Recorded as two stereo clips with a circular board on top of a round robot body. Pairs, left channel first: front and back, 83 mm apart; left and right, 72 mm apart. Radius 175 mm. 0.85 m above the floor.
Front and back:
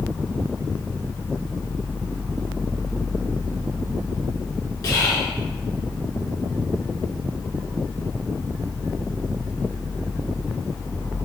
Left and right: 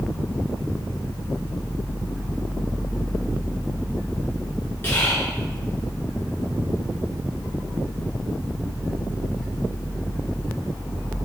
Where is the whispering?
35° left, 0.8 m.